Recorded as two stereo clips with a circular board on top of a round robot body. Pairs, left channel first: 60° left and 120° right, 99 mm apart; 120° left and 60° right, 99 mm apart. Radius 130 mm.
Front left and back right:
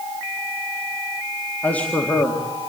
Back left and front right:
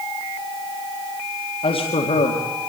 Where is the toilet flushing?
No toilet flushing in this recording.